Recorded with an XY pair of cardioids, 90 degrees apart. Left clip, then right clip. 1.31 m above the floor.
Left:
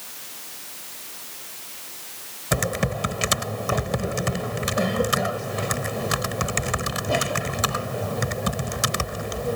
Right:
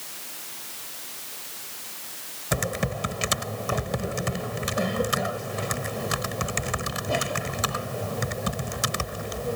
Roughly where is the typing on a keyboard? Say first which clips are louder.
Left 3 dB; ahead left.